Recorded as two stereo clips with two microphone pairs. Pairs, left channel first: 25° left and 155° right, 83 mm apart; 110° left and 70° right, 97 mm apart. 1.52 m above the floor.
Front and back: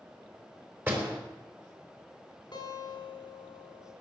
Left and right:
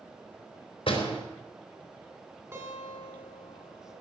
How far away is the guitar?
About 4 m.